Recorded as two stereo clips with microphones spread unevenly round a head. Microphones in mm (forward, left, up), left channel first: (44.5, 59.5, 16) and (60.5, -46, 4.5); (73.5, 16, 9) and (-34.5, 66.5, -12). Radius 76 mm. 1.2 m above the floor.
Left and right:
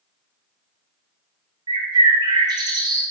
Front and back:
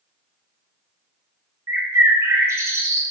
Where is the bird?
135° right, 1.3 m.